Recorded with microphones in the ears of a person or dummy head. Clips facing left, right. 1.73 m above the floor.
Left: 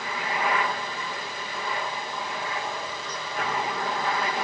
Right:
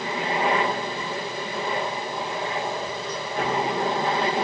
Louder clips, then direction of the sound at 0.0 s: Right 4 dB; 25° right (ahead or behind).